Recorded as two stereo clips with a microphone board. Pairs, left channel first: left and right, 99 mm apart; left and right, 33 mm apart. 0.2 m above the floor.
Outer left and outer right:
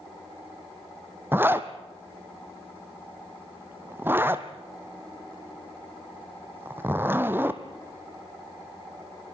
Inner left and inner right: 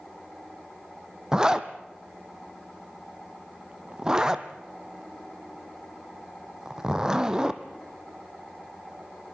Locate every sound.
1.3 s a zipper: 20° right (ahead or behind), 1.5 m